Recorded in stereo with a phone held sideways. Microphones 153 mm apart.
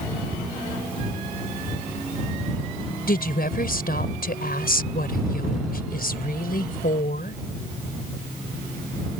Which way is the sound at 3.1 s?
75° left (ahead or behind).